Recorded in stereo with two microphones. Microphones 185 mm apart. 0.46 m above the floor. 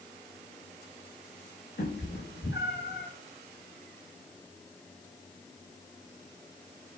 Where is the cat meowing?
85° left, 5.5 m.